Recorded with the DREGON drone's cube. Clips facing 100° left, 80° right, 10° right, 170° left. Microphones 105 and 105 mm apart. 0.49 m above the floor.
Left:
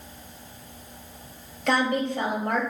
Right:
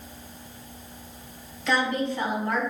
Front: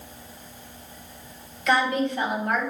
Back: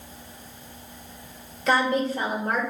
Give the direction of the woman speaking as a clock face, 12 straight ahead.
8 o'clock.